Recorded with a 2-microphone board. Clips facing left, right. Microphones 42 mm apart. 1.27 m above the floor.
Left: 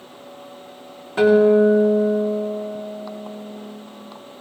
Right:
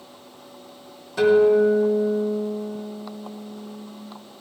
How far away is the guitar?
About 3 m.